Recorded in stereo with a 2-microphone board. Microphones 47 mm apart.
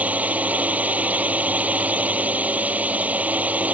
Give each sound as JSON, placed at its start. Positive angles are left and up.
{"t": 0.0, "sound": "a drone", "side_deg": -30}